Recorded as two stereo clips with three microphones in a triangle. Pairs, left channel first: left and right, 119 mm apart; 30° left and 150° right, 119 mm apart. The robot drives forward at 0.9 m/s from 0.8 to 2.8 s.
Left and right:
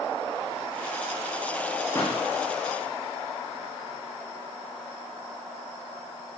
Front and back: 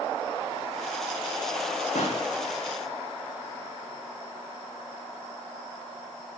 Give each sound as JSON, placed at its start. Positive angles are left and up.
{"t": 1.9, "sound": "a pop", "azimuth_deg": 20, "distance_m": 7.5}